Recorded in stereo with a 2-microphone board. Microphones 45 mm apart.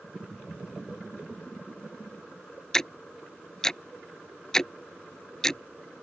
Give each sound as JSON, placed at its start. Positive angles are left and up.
{"t": 2.7, "sound": "ticking", "side_deg": 15}